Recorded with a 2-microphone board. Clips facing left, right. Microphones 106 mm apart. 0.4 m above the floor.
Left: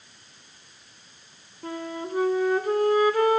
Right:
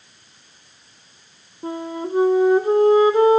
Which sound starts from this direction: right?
A flute, at 1.6 s.